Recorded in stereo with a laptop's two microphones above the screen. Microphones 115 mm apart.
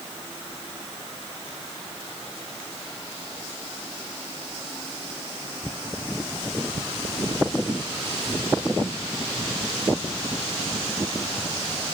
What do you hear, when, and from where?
Only background noise.